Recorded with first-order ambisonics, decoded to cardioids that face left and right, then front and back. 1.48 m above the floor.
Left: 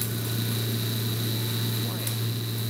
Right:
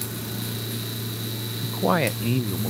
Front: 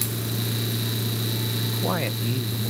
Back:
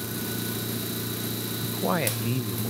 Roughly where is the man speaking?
Right.